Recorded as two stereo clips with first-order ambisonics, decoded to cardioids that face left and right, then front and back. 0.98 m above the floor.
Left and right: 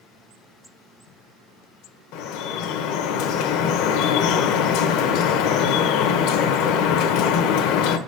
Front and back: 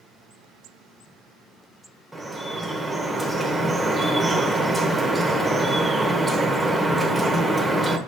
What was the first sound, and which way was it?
Dripping, 95° left.